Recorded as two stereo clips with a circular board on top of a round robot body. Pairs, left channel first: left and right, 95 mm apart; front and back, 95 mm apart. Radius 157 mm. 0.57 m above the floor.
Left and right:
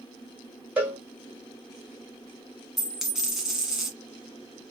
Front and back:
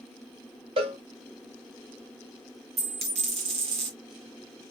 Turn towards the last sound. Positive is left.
turn(degrees=-175)